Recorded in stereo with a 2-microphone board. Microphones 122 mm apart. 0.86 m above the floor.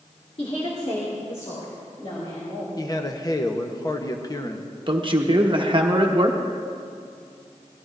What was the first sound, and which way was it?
A woman speaking, 50° left (ahead or behind).